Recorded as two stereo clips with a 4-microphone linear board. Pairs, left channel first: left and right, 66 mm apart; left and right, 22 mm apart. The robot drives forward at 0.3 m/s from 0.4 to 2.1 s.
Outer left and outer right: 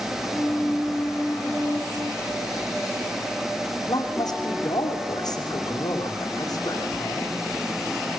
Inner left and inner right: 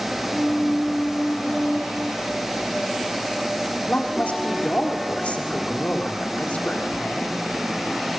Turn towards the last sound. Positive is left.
turn(degrees=70)  # may be behind; listen again after turning